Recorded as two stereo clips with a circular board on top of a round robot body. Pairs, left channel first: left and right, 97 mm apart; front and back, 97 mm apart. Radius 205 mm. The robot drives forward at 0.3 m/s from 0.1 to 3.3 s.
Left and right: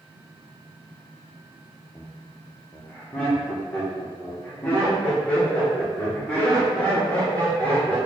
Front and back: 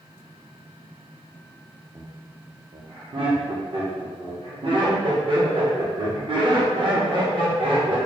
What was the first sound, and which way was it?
Laughter, 150° left.